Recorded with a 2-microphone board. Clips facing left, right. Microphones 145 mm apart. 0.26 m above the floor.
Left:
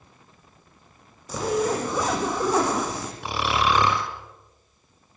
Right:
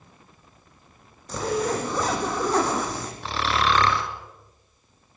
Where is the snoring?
15° left (ahead or behind), 1.6 m.